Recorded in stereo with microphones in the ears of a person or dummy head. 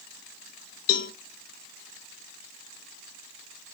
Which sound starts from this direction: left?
A cowbell, at 0.9 s.